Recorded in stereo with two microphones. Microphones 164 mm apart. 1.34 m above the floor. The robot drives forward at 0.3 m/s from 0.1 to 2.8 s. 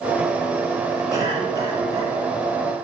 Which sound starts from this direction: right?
A cough, at 1.1 s.